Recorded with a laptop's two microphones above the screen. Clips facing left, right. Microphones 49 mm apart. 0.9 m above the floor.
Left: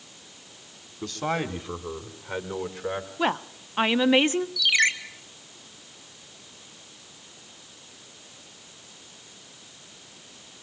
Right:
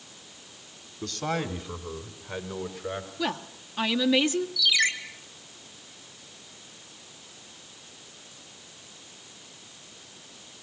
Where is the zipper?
No zipper in this recording.